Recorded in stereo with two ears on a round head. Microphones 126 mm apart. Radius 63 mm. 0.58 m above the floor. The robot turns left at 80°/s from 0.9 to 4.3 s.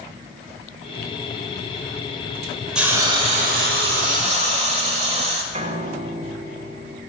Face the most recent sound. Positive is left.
turn(degrees=-45)  # may be behind; listen again after turning